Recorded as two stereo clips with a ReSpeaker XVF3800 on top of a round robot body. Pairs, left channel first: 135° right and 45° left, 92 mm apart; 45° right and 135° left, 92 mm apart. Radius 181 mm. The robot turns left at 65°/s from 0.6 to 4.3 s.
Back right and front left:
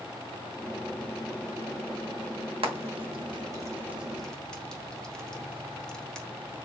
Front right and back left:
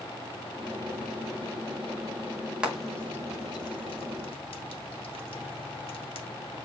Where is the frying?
55° left, 1.3 m; by 6.3 s 55° right, 1.3 m.